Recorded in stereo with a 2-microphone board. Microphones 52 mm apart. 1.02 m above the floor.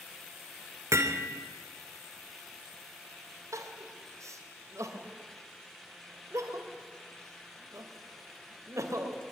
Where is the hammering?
65° right (ahead or behind), 2.5 m.